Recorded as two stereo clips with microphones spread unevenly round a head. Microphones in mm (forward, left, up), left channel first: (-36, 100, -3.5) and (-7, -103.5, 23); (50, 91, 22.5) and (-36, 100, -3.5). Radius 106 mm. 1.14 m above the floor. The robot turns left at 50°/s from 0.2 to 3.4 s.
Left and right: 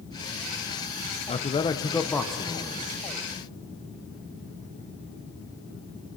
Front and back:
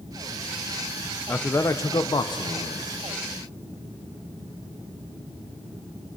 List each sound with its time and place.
1.3 s a man speaking: 70° left, 0.7 m; by 2.9 s 10° right, 0.7 m